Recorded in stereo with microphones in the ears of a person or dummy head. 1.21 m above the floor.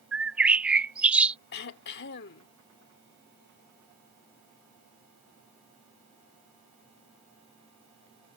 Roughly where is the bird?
Centre.